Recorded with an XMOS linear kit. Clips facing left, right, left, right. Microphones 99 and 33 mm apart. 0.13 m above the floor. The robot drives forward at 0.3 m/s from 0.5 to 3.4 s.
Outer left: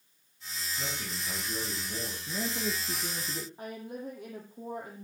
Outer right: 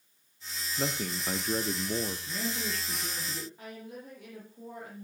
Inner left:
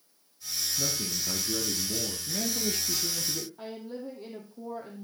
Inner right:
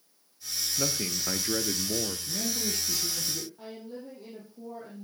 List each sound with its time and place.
0.8 s a man speaking: 50° right (ahead or behind), 2 m; by 2.2 s 55° right (ahead or behind), 2.0 m
2.3 s a man speaking: 15° left (ahead or behind), 3 m
3.6 s a woman speaking: 30° left (ahead or behind), 4.5 m